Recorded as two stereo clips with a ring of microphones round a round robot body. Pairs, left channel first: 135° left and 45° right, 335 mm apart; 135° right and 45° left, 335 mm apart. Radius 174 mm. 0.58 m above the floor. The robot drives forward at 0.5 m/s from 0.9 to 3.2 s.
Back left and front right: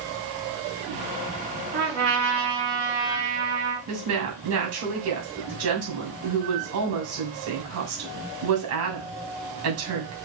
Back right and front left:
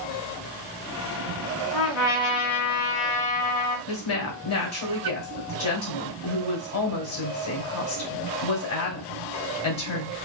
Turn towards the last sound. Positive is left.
turn(degrees=-90)